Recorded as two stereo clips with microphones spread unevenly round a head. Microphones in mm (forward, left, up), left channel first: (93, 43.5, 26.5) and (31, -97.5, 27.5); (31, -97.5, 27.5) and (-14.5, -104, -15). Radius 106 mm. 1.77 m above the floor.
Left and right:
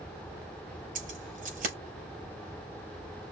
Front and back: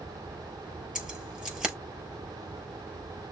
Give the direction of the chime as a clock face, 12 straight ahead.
No chime in this recording.